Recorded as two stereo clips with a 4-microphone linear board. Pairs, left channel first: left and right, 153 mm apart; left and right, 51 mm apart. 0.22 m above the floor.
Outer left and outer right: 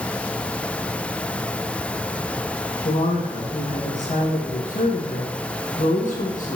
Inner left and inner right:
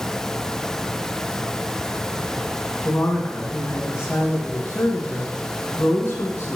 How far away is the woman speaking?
About 1.9 m.